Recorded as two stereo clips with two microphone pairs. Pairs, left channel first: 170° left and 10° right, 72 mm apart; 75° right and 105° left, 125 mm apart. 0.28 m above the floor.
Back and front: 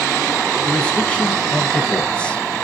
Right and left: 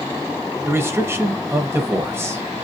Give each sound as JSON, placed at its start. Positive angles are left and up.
{"t": 0.7, "sound": "a man speaking", "azimuth_deg": 120, "distance_m": 0.9}